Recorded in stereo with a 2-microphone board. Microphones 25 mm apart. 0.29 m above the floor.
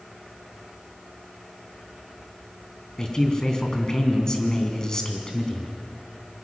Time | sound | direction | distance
3.0 | a man speaking | 30° left (ahead or behind) | 3 m